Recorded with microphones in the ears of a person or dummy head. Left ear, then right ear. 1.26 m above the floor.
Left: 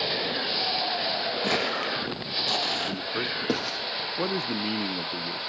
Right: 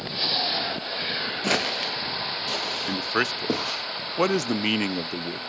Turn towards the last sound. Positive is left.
turn(degrees=-55)  # may be behind; listen again after turning